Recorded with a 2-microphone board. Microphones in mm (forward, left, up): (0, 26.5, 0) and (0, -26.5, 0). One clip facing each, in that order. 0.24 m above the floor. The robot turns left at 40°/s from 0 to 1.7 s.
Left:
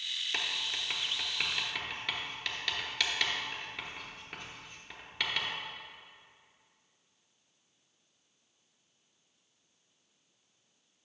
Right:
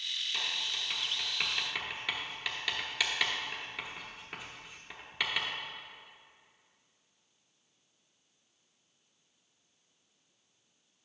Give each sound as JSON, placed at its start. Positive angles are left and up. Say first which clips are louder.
{"t": 0.3, "sound": "writing", "louder": "left 2 dB", "side_deg": 50, "distance_m": 1.0}